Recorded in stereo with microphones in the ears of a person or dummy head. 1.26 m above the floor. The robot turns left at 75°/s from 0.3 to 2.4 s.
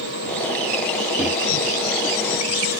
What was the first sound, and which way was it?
A microwave, centre (ahead or behind).